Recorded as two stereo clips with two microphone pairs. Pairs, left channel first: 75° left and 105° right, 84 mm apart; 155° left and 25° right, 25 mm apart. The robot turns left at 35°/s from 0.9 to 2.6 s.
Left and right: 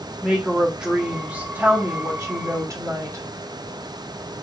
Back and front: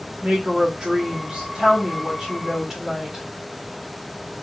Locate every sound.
0.2 s a woman speaking: 25° right, 1.0 m; by 3.2 s 85° right, 1.0 m